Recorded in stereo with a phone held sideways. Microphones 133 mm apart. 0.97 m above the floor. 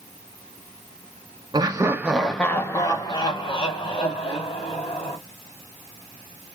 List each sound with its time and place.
1.5 s laughter: 30° right (ahead or behind), 0.6 m; by 5.2 s 50° left (ahead or behind), 1.8 m